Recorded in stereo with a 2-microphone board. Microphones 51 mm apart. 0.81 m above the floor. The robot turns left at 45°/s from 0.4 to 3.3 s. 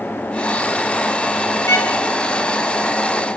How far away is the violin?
About 2.5 m.